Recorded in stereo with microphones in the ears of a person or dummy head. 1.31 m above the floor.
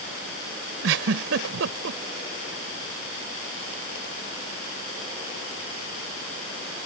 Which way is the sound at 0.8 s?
70° right (ahead or behind).